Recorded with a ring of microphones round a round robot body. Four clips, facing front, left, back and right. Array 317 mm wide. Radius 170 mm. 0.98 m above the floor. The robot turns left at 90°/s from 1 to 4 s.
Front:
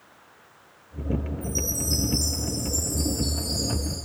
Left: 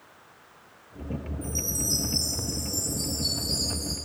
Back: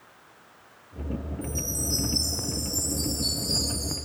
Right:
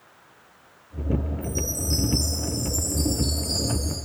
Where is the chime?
55° left, 4.5 m; by 4.0 s 175° right, 4.5 m.